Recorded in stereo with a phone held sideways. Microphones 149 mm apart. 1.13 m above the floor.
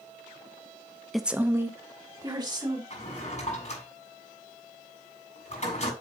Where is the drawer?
50° left (ahead or behind), 6 m.